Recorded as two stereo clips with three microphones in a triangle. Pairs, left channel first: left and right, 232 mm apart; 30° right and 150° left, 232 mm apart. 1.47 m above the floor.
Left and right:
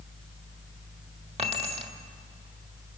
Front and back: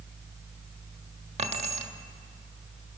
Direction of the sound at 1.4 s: 150° right.